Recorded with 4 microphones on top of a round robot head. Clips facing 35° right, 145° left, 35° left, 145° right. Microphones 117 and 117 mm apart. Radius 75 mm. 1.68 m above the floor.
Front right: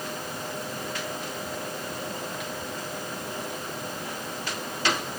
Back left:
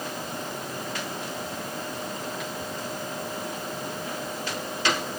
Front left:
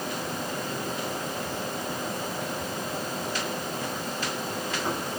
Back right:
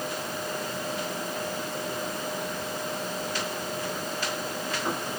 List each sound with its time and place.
Only background noise.